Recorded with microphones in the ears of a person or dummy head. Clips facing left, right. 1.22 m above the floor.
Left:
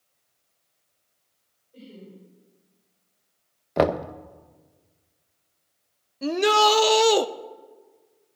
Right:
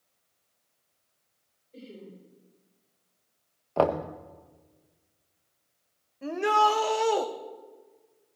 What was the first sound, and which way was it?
Laughter, 35° right (ahead or behind).